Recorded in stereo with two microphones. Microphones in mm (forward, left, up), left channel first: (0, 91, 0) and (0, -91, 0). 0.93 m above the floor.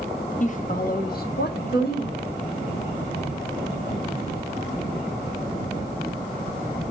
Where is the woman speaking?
45° left (ahead or behind), 0.9 m; by 2.3 s 70° left (ahead or behind), 1.7 m.